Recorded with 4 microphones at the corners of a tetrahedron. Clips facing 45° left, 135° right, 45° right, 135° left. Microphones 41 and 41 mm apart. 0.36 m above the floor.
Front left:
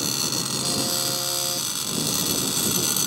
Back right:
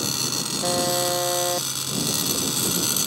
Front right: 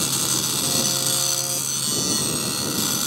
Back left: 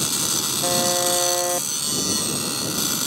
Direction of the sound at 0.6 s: 175° left.